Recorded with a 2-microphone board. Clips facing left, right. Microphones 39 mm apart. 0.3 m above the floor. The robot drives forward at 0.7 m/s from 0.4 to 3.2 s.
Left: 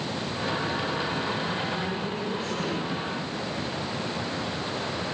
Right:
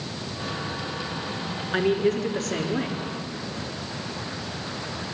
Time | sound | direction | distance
1.7 | a man speaking | 75° right (ahead or behind) | 4.5 m